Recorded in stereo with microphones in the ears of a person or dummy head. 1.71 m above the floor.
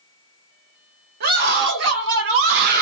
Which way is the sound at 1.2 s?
50° right (ahead or behind).